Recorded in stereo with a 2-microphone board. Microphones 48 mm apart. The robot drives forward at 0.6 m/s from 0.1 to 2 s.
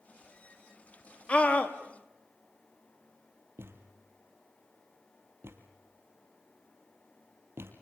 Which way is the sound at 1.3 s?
25° left (ahead or behind).